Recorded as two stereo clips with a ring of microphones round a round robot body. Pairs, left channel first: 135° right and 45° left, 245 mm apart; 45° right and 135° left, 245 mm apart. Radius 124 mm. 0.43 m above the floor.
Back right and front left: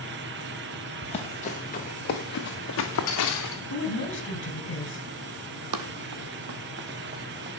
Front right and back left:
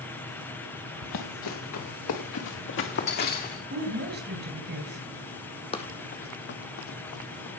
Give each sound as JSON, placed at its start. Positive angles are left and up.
{"t": 1.0, "sound": "running footsteps", "azimuth_deg": -65, "distance_m": 3.5}
{"t": 3.7, "sound": "a woman speaking", "azimuth_deg": -175, "distance_m": 3.0}
{"t": 5.7, "sound": "running footsteps", "azimuth_deg": 25, "distance_m": 1.4}